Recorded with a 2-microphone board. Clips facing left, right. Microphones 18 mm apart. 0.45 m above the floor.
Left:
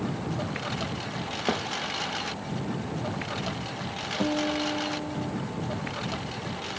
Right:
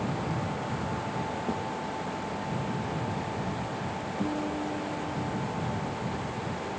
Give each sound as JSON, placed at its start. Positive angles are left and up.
{"t": 0.0, "sound": "a lawn mower", "side_deg": 85}
{"t": 1.5, "sound": "a thud", "side_deg": 65}
{"t": 4.2, "sound": "a guitar", "side_deg": 60}